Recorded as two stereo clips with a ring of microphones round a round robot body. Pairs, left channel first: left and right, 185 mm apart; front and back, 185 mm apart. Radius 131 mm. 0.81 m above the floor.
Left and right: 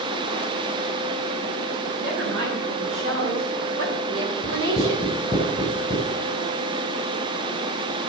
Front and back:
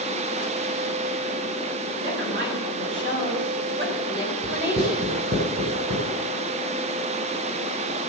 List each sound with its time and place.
2.0 s a woman speaking: 120° right, 7 m; by 5.2 s 85° right, 3.5 m
4.4 s writing: 145° right, 9.5 m